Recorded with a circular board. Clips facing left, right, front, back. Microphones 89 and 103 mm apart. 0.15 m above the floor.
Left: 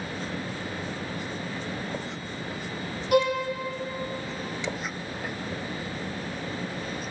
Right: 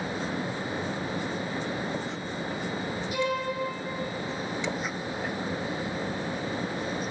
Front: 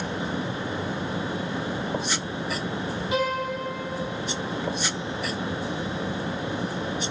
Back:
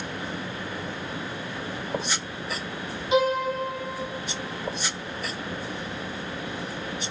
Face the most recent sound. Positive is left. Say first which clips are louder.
# left 7 dB, back 5 dB
turn(degrees=110)